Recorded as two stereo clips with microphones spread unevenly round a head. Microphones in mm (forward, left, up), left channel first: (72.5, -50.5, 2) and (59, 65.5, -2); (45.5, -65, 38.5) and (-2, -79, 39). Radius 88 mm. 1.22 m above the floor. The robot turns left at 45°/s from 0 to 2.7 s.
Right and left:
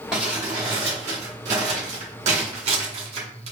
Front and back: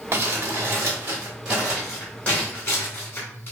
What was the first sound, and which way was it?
Crumpling, 175° right.